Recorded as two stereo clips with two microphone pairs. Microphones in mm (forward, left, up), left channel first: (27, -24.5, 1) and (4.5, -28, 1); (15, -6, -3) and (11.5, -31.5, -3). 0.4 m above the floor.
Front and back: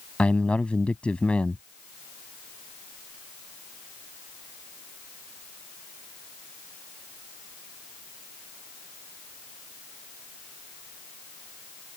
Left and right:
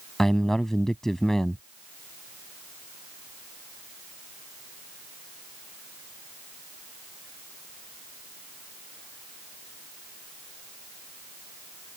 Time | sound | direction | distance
0.2 | a man speaking | 10° left | ?